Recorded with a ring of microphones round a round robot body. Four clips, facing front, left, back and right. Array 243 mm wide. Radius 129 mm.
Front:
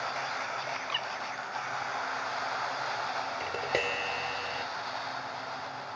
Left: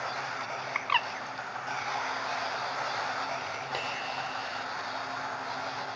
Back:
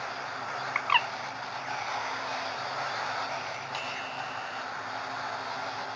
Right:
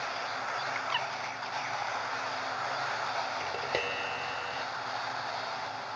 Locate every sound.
0.8 s a bird: 155° left
3.4 s tapping: 25° right